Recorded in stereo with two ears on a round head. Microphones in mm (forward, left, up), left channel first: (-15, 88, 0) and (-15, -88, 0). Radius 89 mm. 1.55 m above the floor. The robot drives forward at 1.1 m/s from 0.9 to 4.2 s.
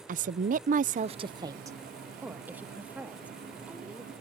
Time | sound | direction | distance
0.1 | a woman speaking | 45° right (ahead or behind) | ?